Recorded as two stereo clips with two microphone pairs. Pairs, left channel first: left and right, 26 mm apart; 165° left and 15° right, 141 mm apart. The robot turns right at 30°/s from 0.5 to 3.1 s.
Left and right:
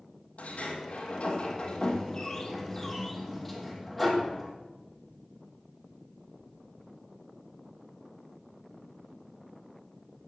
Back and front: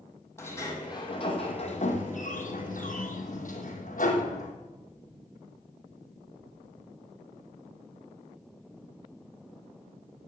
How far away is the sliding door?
About 2.5 m.